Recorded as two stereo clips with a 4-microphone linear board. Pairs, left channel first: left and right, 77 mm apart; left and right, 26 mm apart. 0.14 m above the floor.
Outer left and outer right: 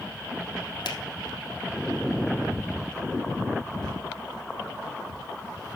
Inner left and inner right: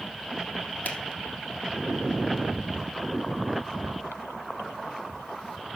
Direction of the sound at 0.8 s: 70° left (ahead or behind).